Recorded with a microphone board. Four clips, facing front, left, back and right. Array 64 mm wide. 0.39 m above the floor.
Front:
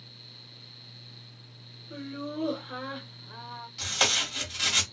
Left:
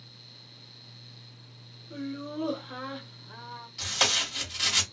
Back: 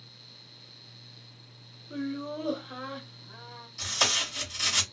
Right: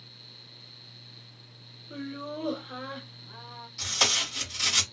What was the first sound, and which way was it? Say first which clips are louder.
Laughter: left 1 dB, back 3 dB; 90° right.